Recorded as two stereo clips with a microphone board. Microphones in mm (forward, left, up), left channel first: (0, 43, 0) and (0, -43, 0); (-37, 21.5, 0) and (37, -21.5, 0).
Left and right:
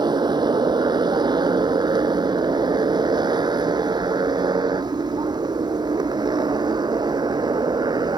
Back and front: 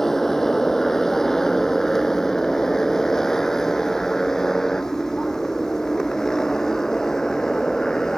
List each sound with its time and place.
0.0 s a motorcycle: 125° right